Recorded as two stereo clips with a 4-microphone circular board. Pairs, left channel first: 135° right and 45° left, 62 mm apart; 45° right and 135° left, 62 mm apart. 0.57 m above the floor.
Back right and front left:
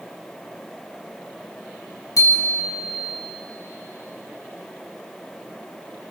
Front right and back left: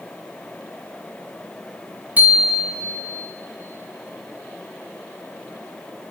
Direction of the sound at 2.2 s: 165° right.